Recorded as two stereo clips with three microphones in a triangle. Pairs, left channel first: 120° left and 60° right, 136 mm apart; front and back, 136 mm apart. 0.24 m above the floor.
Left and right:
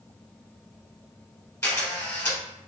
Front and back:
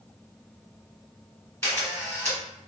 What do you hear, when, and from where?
1.6 s a camera shutter: 60° left, 1.6 m